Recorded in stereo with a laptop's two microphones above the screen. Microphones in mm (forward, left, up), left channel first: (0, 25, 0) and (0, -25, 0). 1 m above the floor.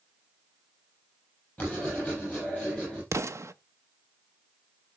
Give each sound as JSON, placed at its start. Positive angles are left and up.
{"t": 1.6, "sound": "writing", "side_deg": 20, "distance_m": 7.5}
{"t": 3.1, "sound": "an explosion", "side_deg": -60, "distance_m": 0.7}